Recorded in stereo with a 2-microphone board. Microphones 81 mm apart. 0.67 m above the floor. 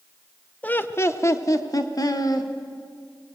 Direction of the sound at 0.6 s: 20° left (ahead or behind).